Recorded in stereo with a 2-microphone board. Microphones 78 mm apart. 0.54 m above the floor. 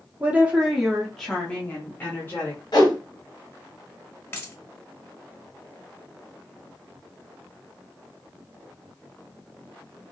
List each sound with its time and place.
0.2 s a woman speaking: 20° right (ahead or behind), 1.0 m; by 2.6 s 30° left (ahead or behind), 1.5 m
2.7 s a whoosh: 60° left (ahead or behind), 2 m
4.3 s a dropped coin: 30° left (ahead or behind), 1.3 m